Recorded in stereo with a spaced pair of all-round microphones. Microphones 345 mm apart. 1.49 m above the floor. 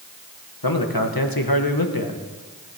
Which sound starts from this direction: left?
A man speaking, at 0.6 s.